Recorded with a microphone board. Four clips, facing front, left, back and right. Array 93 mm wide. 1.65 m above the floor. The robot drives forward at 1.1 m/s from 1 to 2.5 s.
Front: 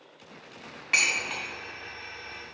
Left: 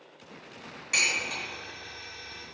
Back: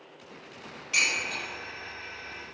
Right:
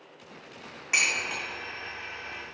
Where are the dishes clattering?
25° right, 2.5 m; by 1.4 s 35° right, 2 m.